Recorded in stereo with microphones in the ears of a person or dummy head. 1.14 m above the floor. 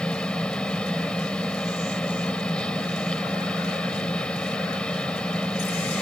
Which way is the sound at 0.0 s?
5° left (ahead or behind).